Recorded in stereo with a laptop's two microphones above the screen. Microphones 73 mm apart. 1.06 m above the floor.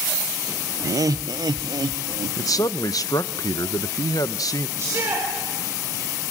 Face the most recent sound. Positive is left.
turn(degrees=-40)  # may be behind; listen again after turning